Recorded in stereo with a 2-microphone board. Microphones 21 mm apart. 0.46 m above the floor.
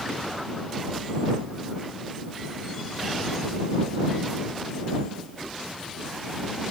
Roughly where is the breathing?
I don't hear breathing.